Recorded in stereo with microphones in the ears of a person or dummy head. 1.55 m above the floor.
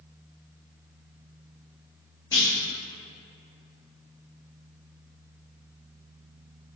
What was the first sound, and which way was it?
A clunk, 25° left (ahead or behind).